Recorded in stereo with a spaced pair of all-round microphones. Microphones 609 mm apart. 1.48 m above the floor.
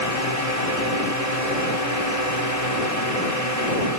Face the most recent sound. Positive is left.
turn(degrees=85)